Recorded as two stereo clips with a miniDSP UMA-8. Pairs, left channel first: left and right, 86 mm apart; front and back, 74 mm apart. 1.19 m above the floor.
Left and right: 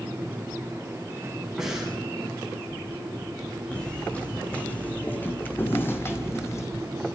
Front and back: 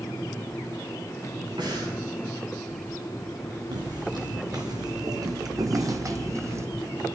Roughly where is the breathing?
Behind.